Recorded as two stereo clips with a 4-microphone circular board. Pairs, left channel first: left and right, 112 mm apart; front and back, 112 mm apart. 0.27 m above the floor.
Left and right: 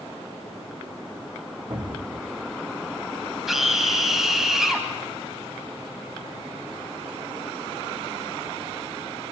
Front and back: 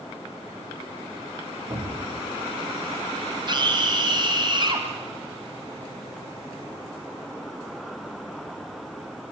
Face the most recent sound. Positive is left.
turn(degrees=-175)